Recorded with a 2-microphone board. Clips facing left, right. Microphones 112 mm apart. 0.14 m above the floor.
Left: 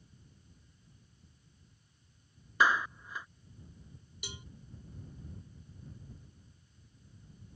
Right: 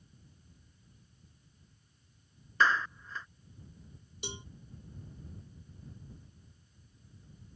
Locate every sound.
2.6 s a clap: 15° left (ahead or behind)
4.2 s a cowbell: 30° right (ahead or behind)